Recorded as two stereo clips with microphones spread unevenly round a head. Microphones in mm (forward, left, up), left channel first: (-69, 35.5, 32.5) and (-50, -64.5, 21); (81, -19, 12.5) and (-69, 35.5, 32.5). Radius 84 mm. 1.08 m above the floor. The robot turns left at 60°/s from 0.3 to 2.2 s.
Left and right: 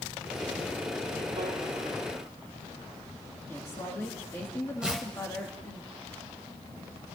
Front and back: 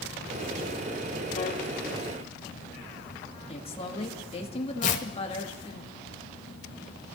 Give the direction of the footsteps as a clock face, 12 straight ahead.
No footsteps in this recording.